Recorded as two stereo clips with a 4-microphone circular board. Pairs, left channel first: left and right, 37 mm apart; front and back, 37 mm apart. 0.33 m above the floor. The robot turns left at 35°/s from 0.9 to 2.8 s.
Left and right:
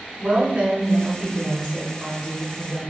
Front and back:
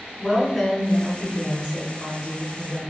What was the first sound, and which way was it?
A woman speaking, 85° right.